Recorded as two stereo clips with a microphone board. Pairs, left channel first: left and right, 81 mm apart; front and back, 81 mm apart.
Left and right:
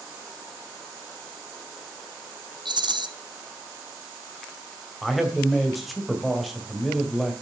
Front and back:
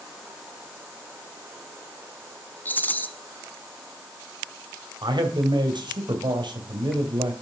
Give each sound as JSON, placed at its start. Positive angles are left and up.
{"t": 2.6, "sound": "a rattle", "azimuth_deg": -65, "distance_m": 1.0}
{"t": 5.0, "sound": "a man speaking", "azimuth_deg": 180, "distance_m": 2.0}